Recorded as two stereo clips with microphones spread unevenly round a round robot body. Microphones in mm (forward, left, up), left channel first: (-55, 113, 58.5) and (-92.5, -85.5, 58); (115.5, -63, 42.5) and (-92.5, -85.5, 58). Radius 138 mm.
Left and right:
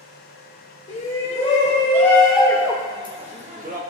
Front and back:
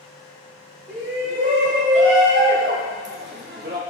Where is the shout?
130° left, 2.5 m; by 3.8 s 135° right, 2.5 m.